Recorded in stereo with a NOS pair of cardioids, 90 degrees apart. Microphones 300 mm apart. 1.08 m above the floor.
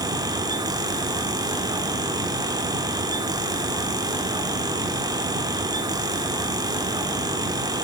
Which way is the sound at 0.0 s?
10° right.